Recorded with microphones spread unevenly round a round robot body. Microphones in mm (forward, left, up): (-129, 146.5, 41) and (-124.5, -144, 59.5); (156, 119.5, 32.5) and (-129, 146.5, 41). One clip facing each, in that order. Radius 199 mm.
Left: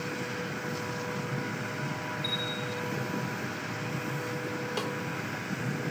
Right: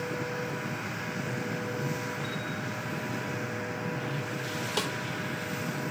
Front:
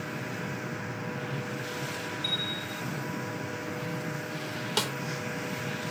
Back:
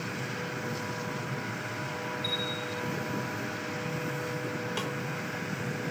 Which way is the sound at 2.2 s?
40° left.